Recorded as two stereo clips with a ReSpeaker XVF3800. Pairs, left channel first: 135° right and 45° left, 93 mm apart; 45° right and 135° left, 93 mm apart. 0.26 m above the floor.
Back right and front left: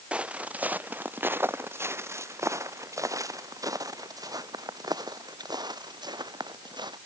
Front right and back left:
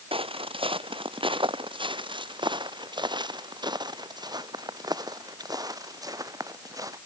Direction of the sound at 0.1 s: 125° left.